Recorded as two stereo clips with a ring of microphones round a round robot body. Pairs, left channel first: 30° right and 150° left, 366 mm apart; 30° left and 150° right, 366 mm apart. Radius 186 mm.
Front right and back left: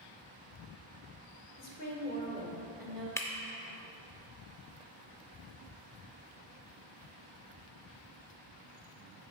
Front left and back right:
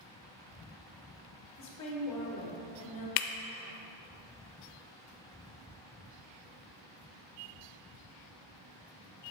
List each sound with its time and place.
1.6 s a woman speaking: 5° left, 1.5 m; by 3.1 s 60° left, 1.3 m
3.2 s breaking glass: 55° left, 0.5 m